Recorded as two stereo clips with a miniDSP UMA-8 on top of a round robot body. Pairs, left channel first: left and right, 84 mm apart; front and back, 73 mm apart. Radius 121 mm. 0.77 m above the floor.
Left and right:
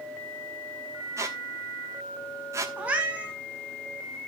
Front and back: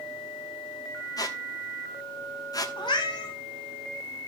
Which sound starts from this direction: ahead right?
A squeak, at 1.2 s.